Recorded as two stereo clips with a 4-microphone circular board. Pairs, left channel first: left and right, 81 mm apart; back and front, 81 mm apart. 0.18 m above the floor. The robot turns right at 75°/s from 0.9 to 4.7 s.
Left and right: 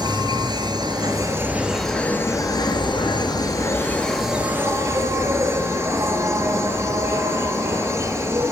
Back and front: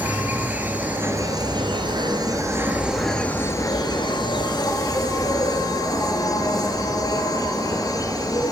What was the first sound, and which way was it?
An insect, 70° right.